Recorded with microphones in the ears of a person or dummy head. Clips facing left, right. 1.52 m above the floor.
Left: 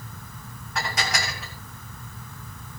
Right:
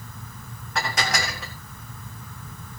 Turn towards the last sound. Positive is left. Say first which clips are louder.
# right 2 dB
turn(degrees=-60)  # may be behind; listen again after turning